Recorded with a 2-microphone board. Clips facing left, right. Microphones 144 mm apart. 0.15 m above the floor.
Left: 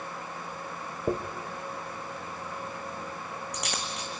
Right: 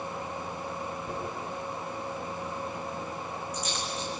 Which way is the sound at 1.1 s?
75° left (ahead or behind).